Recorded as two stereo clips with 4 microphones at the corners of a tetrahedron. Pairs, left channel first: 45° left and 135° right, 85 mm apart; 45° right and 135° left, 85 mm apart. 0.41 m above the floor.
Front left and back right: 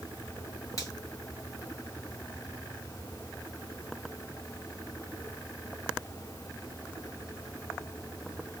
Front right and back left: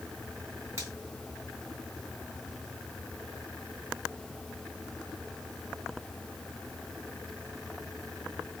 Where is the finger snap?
85° left, 2 m.